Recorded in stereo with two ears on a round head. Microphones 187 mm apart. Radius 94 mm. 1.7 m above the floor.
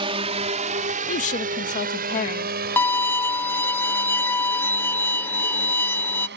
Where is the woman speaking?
35° left (ahead or behind).